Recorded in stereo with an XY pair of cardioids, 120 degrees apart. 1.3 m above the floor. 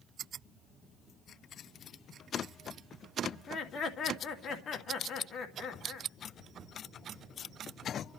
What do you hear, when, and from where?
3.3 s laughter: 50° left, 2.5 m